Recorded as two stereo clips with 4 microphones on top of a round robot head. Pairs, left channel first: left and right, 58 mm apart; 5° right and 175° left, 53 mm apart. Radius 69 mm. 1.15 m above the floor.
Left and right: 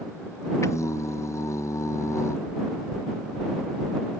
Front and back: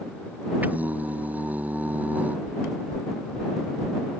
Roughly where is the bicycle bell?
I don't hear a bicycle bell.